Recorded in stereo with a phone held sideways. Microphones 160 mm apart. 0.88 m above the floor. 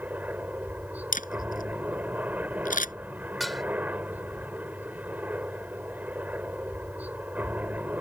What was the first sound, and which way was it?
A helicopter, 10° right (ahead or behind).